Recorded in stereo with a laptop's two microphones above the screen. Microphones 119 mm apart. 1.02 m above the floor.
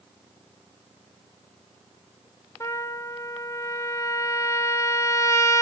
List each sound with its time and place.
2.6 s a trumpet: 25° left (ahead or behind), 0.8 m